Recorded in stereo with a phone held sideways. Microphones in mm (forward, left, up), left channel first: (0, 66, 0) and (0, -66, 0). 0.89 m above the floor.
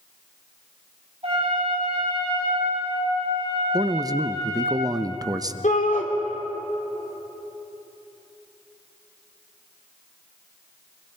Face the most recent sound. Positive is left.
turn(degrees=70)  # may be behind; listen again after turning